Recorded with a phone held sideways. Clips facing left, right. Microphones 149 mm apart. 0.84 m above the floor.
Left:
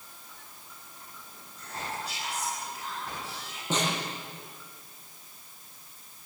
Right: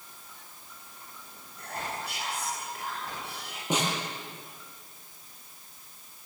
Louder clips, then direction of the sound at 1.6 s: Right 1 dB; 60° right (ahead or behind).